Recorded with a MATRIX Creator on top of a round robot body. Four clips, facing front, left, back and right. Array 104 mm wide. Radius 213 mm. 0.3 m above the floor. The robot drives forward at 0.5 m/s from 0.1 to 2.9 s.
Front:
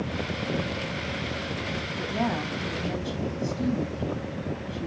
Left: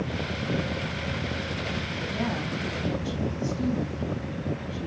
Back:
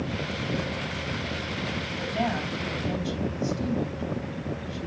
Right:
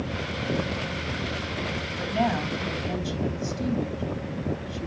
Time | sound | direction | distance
2.0 | a woman speaking | 110° right | 4 m